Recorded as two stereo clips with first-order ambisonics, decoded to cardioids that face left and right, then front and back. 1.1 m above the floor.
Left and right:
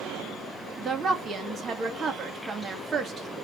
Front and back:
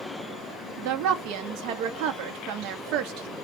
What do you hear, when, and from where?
0.8 s a woman speaking: 155° right, 1.8 m